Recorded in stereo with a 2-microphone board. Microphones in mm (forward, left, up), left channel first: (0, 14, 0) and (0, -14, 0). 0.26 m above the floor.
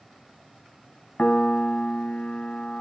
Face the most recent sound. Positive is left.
turn(degrees=60)  # may be behind; listen again after turning